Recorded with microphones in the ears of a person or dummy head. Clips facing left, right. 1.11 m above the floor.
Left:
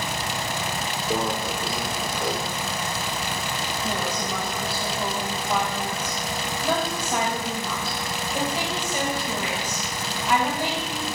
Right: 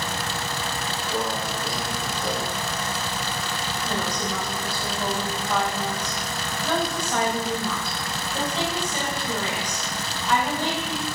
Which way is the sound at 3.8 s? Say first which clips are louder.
Right 1 dB; 10° left (ahead or behind).